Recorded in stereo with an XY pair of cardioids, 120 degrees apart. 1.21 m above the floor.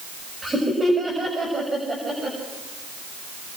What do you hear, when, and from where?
0.4 s laughter: 20° right, 6.5 m